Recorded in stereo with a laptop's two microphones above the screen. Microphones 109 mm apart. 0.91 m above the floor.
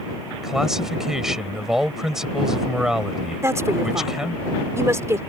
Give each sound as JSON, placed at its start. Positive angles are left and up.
{"t": 0.4, "sound": "a man speaking", "side_deg": -5}
{"t": 3.4, "sound": "a woman speaking", "side_deg": -25}